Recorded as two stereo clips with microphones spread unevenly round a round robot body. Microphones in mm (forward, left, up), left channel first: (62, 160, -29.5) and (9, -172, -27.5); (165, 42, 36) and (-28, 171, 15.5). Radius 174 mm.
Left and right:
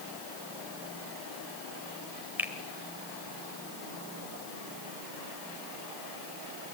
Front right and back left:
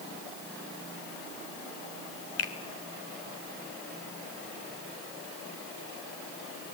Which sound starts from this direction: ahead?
A finger snap, at 2.4 s.